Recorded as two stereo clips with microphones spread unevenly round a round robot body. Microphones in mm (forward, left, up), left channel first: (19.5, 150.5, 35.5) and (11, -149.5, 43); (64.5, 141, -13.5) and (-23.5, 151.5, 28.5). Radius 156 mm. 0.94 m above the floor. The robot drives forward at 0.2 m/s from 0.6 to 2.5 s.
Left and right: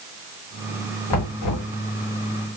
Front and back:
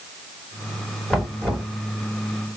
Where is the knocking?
85° left, 2.5 m; by 1.7 s 90° left, 2.5 m.